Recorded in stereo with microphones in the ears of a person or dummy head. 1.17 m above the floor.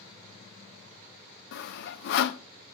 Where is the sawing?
60° left (ahead or behind), 0.5 m.